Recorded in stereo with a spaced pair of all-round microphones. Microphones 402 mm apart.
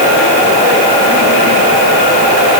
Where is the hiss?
I don't hear a hiss.